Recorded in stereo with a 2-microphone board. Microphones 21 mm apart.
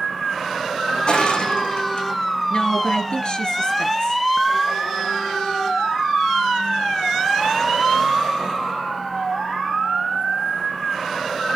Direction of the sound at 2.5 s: 50° left (ahead or behind).